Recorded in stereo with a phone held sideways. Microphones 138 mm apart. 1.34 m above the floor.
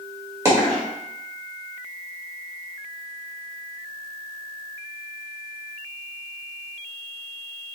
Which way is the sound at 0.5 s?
20° right (ahead or behind).